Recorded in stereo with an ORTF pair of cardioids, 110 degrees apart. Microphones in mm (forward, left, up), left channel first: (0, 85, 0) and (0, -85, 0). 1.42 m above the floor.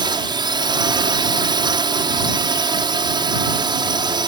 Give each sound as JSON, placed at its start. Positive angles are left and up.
{"t": 0.0, "sound": "a drone", "azimuth_deg": -30}